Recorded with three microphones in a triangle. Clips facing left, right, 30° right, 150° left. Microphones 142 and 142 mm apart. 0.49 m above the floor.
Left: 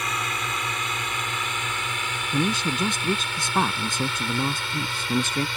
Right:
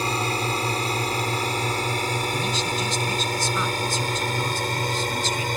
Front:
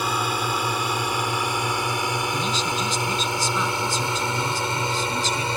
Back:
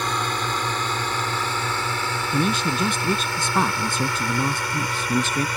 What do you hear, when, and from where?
0.0 s a drone: 105° right; by 5.6 s 80° right
2.3 s a man speaking: 120° left